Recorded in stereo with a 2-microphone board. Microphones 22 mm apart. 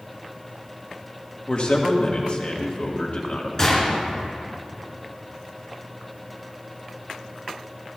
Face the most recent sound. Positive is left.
turn(degrees=25)  # may be behind; listen again after turning